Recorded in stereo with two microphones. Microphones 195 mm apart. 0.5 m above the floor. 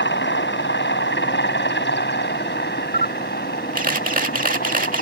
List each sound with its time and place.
0.0 s a helicopter: 70° left (ahead or behind); by 5.0 s 50° left (ahead or behind)
2.9 s a camera shutter: 45° right (ahead or behind)